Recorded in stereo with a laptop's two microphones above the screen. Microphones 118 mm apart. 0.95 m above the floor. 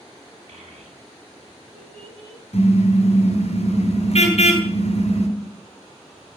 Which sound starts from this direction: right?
A child speaking, at 0.5 s.